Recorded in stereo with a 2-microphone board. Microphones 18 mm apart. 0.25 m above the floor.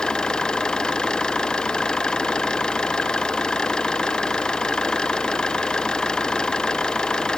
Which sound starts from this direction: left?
An engine running, at 0.0 s.